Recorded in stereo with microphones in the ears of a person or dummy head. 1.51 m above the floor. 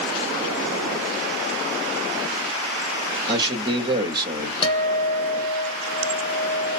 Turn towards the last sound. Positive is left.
turn(degrees=25)  # may be behind; listen again after turning